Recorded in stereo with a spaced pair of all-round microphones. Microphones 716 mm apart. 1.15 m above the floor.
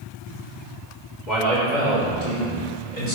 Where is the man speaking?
70° left (ahead or behind), 3.5 m; by 3.1 s 85° left, 4.5 m.